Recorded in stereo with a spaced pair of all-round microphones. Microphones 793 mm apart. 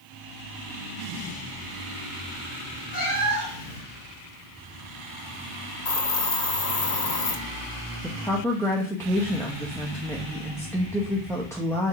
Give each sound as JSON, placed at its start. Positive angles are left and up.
{"t": 2.9, "sound": "a cat meowing", "side_deg": 60, "distance_m": 3.5}
{"t": 5.8, "sound": "a hiss", "side_deg": 55, "distance_m": 0.9}
{"t": 8.0, "sound": "a woman speaking", "side_deg": 5, "distance_m": 0.9}